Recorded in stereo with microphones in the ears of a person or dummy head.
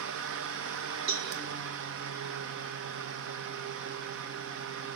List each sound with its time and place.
0.0 s a fan: 55° right (ahead or behind), 1.6 m
1.1 s a cowbell: 70° right (ahead or behind), 5.5 m